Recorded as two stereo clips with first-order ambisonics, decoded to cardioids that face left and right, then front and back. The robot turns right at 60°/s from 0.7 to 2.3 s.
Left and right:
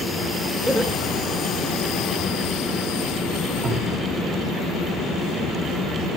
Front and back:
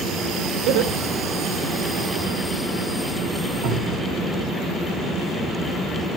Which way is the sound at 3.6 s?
145° right.